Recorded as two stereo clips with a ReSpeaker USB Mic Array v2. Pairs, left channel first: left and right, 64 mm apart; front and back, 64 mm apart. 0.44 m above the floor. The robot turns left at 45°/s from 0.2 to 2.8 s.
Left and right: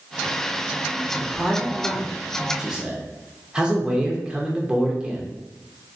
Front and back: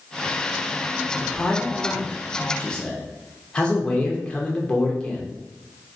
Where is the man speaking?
30° left, 0.7 m; by 5.3 s 40° right, 0.7 m.